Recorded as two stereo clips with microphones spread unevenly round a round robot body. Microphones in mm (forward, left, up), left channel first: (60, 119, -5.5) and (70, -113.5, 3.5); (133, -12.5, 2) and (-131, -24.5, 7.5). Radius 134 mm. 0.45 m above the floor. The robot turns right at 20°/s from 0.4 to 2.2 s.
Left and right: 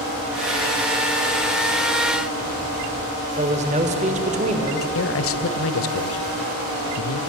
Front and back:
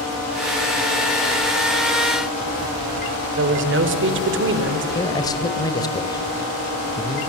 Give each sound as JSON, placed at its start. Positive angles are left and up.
{"t": 3.4, "sound": "a man speaking", "azimuth_deg": -145, "distance_m": 1.9}
{"t": 5.0, "sound": "a man speaking", "azimuth_deg": 80, "distance_m": 1.7}